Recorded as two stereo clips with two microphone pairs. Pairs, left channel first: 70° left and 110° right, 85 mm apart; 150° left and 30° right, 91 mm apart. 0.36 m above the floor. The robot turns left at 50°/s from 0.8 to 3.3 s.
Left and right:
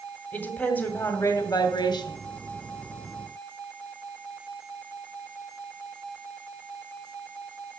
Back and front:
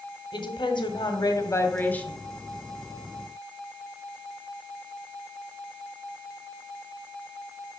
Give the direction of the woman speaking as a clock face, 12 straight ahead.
7 o'clock.